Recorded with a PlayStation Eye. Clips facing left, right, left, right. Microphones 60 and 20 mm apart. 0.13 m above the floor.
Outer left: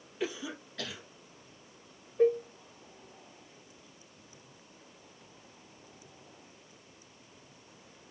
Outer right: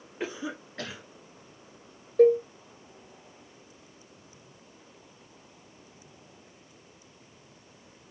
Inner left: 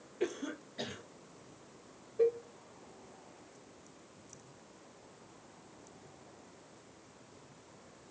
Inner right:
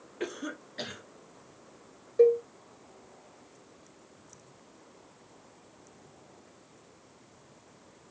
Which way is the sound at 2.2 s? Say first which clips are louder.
Outer right 7 dB, inner right 9 dB; 80° right.